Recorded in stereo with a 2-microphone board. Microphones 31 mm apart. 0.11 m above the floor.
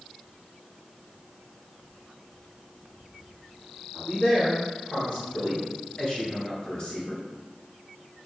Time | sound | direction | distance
3.9 | a man speaking | 20° left (ahead or behind) | 1.9 m